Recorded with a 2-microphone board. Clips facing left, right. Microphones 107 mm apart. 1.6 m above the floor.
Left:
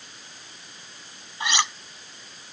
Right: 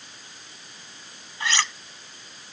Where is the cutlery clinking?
20° left (ahead or behind).